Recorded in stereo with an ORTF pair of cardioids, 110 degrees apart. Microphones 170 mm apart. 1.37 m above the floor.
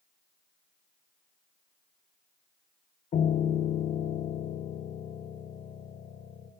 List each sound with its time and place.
3.1 s a piano: 50° left, 1.1 m